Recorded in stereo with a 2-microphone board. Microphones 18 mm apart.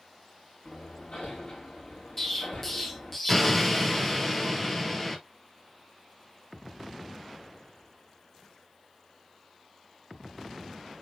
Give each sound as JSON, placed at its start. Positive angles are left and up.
{"t": 0.7, "sound": "hammering", "side_deg": 75, "distance_m": 5.0}
{"t": 2.2, "sound": "an explosion", "side_deg": 10, "distance_m": 2.0}